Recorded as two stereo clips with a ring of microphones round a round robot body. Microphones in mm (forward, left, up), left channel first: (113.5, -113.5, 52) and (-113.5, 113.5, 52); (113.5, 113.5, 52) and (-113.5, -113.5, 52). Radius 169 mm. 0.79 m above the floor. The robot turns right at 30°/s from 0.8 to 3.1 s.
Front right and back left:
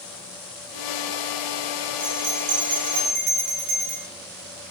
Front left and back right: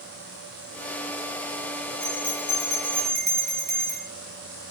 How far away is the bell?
About 2.5 m.